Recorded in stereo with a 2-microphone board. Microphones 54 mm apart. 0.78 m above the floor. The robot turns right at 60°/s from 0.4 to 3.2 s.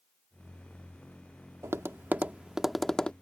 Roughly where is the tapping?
Right.